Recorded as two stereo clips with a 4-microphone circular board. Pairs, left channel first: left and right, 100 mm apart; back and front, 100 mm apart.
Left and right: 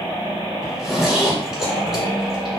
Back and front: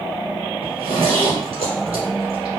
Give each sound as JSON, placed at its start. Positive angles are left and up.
{"t": 0.6, "sound": "a zipper", "azimuth_deg": -5, "distance_m": 1.3}